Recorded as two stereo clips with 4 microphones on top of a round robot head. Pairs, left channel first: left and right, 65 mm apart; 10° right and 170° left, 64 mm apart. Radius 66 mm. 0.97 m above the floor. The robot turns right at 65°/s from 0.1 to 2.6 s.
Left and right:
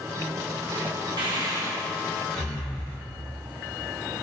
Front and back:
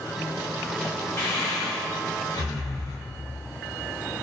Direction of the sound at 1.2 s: 70° right.